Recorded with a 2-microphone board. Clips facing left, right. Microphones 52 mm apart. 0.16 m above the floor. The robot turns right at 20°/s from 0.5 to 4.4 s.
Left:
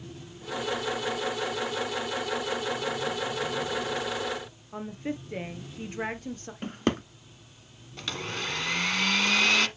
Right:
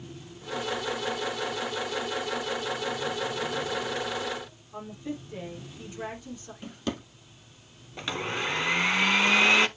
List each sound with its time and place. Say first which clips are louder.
4.7 s a woman speaking: left 3 dB; 50° left (ahead or behind), 2 m
6.6 s a drawer: left 6 dB; 50° left (ahead or behind), 0.9 m
8.0 s a blender: right 3 dB; 15° right (ahead or behind), 0.7 m